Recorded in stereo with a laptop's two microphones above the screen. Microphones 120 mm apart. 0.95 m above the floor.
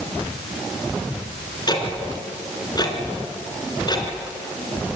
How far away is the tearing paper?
No tearing paper in this recording.